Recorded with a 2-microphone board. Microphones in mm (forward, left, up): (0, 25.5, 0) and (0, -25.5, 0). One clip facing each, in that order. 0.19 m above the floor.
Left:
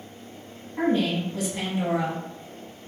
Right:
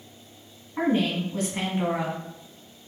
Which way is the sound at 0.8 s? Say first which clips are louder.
Left 1 dB; 35° right (ahead or behind).